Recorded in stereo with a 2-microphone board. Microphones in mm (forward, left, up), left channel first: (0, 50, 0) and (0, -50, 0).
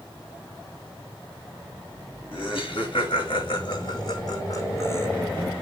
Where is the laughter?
70° left (ahead or behind), 2 m; by 5.1 s 25° left (ahead or behind), 1.4 m.